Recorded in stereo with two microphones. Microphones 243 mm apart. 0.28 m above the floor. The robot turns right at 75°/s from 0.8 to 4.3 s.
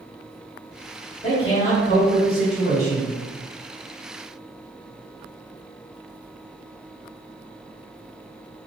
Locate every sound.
1.2 s a man speaking: 35° left, 1.7 m; by 3.1 s 175° left, 1.7 m